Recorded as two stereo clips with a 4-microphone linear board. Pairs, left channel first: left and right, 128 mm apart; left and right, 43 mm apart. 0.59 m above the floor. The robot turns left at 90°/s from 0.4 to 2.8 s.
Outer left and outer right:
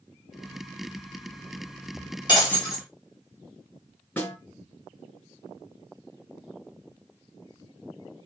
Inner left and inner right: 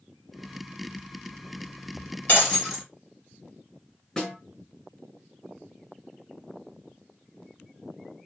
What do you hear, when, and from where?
2.3 s breaking glass: 35° left, 5 m; by 2.9 s 10° right, 5 m
4.2 s a snare drum: 10° left (ahead or behind), 5 m